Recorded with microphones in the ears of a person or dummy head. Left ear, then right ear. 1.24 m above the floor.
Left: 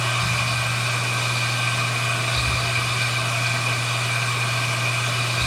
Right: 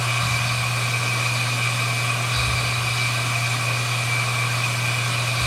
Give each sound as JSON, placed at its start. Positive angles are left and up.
{"t": 0.0, "sound": "a machine running", "side_deg": 5, "distance_m": 4.0}